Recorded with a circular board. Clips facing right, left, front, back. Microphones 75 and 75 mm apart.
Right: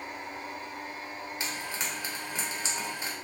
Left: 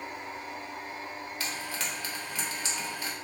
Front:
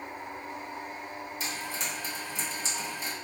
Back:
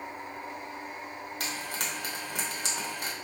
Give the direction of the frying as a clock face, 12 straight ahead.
5 o'clock.